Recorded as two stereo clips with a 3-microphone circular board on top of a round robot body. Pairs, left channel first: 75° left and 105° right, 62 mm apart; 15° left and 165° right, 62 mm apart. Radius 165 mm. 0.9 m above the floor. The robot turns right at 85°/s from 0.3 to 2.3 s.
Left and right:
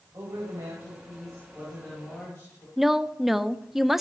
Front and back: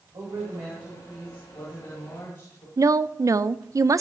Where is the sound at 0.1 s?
150° right, 4.5 m; by 2.7 s 20° left, 4.5 m.